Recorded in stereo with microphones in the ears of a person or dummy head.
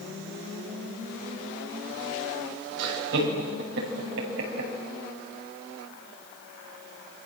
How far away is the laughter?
About 6 m.